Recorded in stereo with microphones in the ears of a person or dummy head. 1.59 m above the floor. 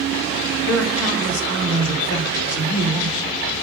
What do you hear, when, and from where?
0.7 s a man speaking: 85° left, 1.6 m